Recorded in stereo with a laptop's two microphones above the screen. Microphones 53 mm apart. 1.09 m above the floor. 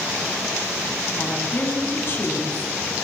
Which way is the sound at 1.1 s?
45° left (ahead or behind).